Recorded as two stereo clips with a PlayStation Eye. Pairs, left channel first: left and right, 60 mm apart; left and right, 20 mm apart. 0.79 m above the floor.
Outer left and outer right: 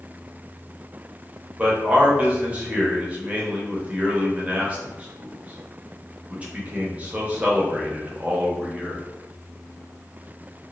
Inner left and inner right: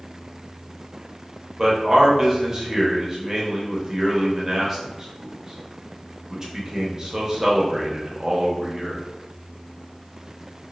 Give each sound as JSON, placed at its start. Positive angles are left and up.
{"t": 1.6, "sound": "a man speaking", "side_deg": -25, "distance_m": 0.6}